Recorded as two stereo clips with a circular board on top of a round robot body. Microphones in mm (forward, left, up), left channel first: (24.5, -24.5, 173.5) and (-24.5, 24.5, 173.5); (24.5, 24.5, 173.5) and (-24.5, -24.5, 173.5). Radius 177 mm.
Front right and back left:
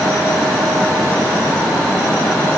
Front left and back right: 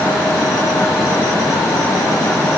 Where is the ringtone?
No ringtone in this recording.